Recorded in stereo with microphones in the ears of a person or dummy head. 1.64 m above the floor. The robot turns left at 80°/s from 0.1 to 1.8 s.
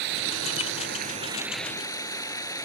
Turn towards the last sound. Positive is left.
turn(degrees=160)